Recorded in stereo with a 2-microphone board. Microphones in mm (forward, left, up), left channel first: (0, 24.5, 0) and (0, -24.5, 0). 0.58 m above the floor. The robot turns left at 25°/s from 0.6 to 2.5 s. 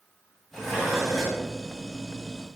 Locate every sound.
0.5 s dishes clattering: 10° left (ahead or behind), 3 m; by 1.4 s 15° right (ahead or behind), 3 m